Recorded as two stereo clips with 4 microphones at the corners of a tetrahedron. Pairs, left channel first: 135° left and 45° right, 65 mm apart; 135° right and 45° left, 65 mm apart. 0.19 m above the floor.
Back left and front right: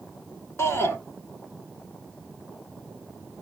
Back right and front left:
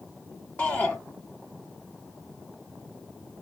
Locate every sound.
0.6 s a shout: 165° left, 1.4 m